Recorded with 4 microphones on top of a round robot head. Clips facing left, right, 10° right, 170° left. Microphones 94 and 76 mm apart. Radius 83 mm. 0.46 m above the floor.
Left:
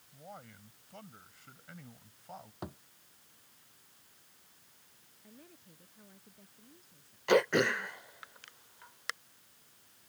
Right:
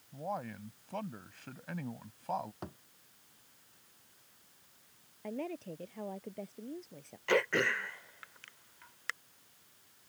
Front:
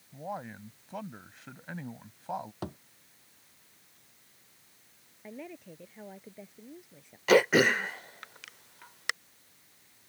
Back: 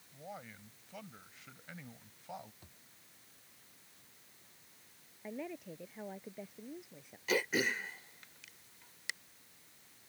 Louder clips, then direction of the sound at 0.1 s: Right 12 dB, front 10 dB; 60° right.